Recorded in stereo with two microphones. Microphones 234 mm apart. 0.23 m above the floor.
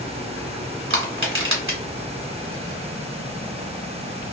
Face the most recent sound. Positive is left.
turn(degrees=-60)  # may be behind; listen again after turning